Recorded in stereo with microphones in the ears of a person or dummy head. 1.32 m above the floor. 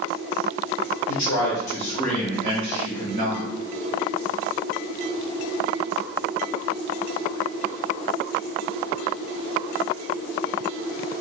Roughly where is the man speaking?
Left.